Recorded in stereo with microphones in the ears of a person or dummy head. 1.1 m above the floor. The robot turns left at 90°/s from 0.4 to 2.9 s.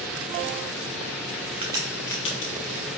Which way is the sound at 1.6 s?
30° right (ahead or behind).